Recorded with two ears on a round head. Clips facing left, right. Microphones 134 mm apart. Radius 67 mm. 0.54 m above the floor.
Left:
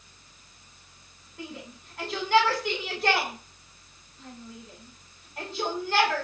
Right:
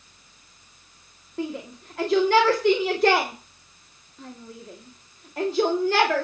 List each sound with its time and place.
1.4 s a shout: 60° right (ahead or behind), 2 m